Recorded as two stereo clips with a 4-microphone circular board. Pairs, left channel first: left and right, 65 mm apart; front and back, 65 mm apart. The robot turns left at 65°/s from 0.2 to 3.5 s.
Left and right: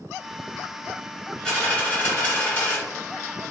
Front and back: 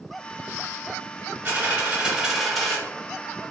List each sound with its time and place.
1.4 s a dropped coin: 155° left, 1.3 m; by 2.8 s 70° left, 1.3 m